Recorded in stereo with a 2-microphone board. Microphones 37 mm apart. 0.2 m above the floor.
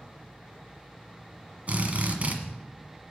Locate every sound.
1.7 s a drill: 40° right (ahead or behind), 1.5 m